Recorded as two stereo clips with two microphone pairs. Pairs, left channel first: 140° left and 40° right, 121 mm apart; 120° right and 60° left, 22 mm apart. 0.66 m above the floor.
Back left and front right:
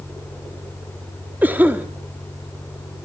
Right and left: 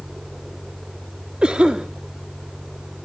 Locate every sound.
1.4 s a cough: 30° left, 1.2 m